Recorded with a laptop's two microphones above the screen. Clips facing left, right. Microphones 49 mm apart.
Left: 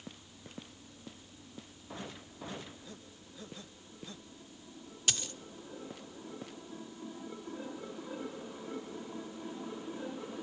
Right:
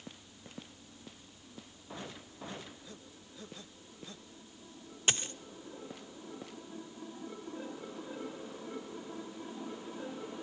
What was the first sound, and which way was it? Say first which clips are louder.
A dropped coin: right 3 dB; 30° right (ahead or behind).